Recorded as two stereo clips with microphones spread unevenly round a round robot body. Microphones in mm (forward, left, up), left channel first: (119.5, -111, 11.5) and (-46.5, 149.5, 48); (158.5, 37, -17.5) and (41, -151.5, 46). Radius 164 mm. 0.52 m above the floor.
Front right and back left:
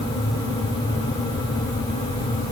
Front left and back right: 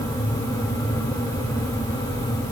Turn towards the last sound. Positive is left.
No sound to turn to.